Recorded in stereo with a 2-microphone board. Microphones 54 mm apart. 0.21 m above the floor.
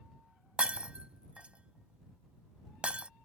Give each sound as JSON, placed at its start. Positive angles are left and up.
{"t": 0.6, "sound": "breaking glass", "side_deg": -25}